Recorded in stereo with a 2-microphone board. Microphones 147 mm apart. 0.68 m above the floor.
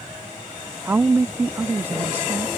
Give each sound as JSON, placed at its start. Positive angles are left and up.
{"t": 0.8, "sound": "a woman speaking", "side_deg": -15}